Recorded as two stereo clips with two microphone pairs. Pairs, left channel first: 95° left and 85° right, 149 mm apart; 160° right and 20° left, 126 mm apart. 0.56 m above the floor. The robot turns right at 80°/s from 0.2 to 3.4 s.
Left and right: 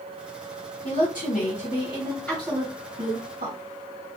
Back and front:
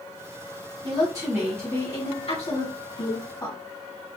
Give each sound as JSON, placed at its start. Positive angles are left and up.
{"t": 0.8, "sound": "a woman speaking", "azimuth_deg": 60, "distance_m": 2.5}